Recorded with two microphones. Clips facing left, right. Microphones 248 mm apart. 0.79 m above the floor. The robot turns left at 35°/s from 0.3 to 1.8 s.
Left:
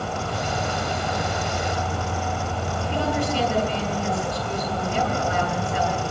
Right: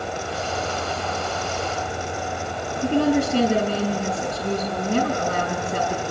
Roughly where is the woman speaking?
Right.